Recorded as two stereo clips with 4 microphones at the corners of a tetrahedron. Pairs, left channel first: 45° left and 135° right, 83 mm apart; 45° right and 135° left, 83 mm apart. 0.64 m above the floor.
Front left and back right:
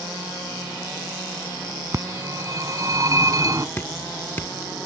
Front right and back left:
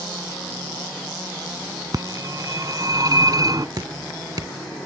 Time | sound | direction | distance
1.9 | a phone ringing | straight behind | ?
3.8 | dripping | 105° left | ?